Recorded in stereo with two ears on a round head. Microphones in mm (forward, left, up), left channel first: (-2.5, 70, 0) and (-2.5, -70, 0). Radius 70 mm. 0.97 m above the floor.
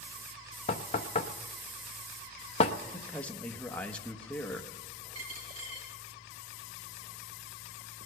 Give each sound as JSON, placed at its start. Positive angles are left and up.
{"t": 0.7, "sound": "knocking", "side_deg": 40, "distance_m": 0.6}
{"t": 2.9, "sound": "a man speaking", "side_deg": 10, "distance_m": 0.9}
{"t": 5.2, "sound": "a dropped coin", "side_deg": -40, "distance_m": 5.0}